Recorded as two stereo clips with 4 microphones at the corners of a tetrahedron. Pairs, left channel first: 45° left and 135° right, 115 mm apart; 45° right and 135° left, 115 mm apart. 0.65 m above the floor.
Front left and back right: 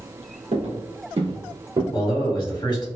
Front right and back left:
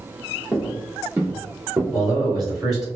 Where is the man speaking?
50° left, 1.6 m.